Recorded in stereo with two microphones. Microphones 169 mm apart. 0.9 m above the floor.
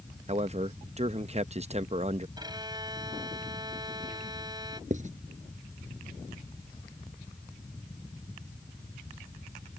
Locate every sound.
0.3 s a man speaking: 40° right (ahead or behind)
2.4 s a violin: 25° right (ahead or behind)
4.9 s writing: 50° right (ahead or behind)